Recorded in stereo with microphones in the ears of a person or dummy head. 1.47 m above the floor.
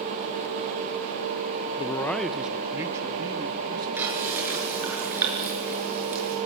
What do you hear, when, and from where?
1.8 s a man speaking: 30° left (ahead or behind), 0.7 m; by 5.0 s 30° right (ahead or behind), 3.5 m
4.0 s frying: 10° right (ahead or behind), 6.5 m